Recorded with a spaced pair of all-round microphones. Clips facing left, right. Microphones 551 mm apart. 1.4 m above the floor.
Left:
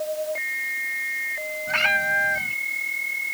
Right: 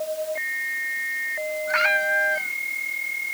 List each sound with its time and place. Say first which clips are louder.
1.7 s a cat meowing: right 4 dB; 55° left (ahead or behind)